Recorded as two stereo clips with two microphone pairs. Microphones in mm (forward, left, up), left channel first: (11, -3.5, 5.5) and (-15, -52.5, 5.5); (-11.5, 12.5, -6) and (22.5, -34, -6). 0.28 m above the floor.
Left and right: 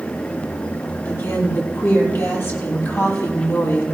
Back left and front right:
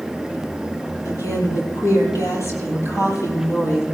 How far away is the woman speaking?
About 6.5 m.